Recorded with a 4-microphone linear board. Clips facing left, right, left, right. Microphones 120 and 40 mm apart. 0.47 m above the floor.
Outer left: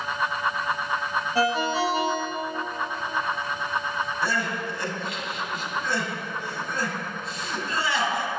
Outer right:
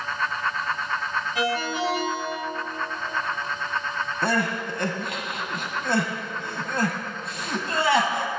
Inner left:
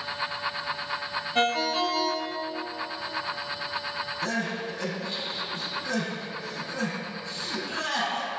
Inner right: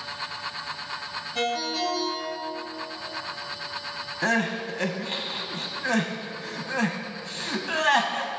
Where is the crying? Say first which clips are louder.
Outer right 6 dB, inner right 7 dB; 65° right (ahead or behind), 0.9 m.